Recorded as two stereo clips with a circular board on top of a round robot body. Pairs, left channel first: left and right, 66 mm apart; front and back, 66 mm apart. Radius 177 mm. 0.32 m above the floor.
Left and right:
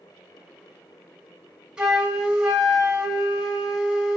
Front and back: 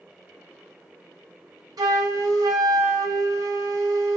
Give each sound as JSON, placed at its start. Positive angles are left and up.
{"t": 1.8, "sound": "a flute", "azimuth_deg": -165, "distance_m": 0.8}